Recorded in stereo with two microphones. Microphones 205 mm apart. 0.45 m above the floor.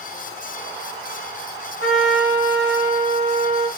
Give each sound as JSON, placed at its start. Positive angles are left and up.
{"t": 1.8, "sound": "a trumpet", "side_deg": 65, "distance_m": 2.5}